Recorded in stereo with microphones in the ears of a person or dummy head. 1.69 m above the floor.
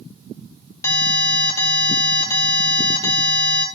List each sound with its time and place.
0.8 s an alarm: 15° left (ahead or behind), 4 m